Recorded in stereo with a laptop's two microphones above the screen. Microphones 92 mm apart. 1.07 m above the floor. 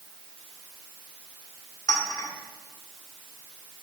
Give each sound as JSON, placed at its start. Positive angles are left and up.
{"t": 1.9, "sound": "a clink", "side_deg": 40, "distance_m": 1.7}